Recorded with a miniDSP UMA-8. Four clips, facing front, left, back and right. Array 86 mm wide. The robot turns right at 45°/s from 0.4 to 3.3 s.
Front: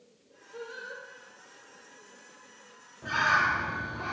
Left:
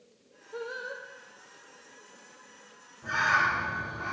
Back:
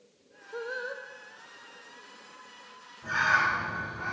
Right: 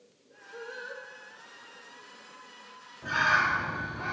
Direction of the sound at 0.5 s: 150° left.